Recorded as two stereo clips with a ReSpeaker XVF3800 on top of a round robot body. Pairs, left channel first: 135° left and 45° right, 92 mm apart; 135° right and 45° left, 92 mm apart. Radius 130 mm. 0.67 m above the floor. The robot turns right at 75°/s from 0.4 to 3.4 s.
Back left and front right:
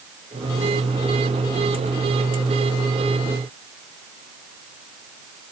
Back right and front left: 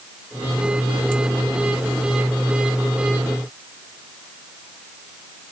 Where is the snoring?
No snoring in this recording.